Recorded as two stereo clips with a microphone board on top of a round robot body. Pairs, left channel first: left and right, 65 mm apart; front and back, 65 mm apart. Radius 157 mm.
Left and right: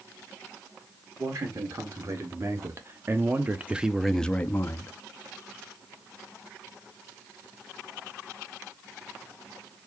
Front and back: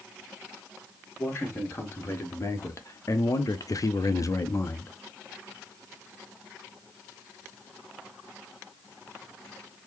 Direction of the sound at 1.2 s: 55° right.